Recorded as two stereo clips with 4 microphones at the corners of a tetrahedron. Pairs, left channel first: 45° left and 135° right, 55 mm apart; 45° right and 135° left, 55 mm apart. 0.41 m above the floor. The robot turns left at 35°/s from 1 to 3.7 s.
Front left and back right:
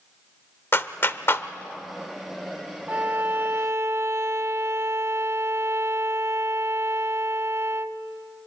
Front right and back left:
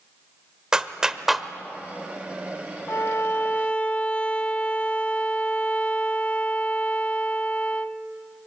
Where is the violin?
80° right, 0.6 m; by 8.0 s 110° right, 0.6 m.